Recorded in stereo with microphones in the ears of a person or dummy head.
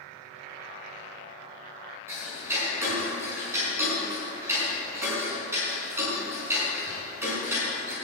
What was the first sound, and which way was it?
Ticking, 15° right (ahead or behind).